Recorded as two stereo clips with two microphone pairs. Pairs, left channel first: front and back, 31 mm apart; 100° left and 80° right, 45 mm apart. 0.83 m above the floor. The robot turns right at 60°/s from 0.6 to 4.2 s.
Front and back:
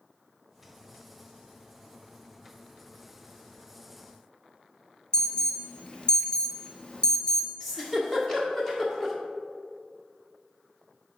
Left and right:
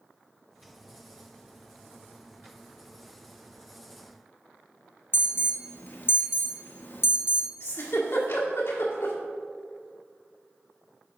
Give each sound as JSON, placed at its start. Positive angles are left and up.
{"t": 5.1, "sound": "an alarm", "azimuth_deg": 65, "distance_m": 0.8}
{"t": 7.6, "sound": "a giggle", "azimuth_deg": 85, "distance_m": 1.5}